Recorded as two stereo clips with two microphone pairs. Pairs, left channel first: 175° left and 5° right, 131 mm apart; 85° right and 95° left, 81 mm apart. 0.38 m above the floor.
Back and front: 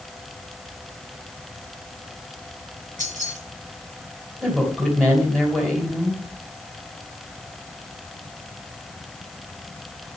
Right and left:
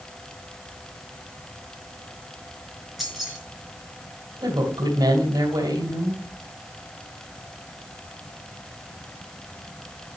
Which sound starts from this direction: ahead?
Keys jangling, at 3.0 s.